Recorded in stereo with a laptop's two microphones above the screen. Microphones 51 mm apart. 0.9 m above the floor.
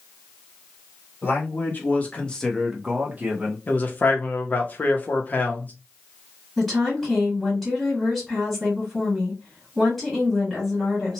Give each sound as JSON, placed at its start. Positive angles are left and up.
{"t": 1.2, "sound": "a man speaking", "side_deg": 45, "distance_m": 1.5}
{"t": 3.7, "sound": "a man speaking", "side_deg": 30, "distance_m": 0.6}
{"t": 6.6, "sound": "a woman speaking", "side_deg": 5, "distance_m": 1.5}